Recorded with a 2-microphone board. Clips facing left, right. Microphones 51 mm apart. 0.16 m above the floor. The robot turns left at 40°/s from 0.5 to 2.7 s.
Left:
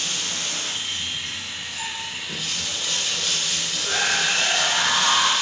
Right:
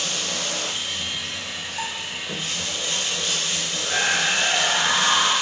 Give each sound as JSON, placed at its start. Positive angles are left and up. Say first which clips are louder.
{"t": 0.0, "sound": "running water", "louder": "right 1 dB", "azimuth_deg": -75, "distance_m": 0.8}
{"t": 1.8, "sound": "a bell", "louder": "right 2 dB", "side_deg": -50, "distance_m": 1.0}
{"t": 3.8, "sound": "a scream", "louder": "right 1 dB", "side_deg": 5, "distance_m": 1.9}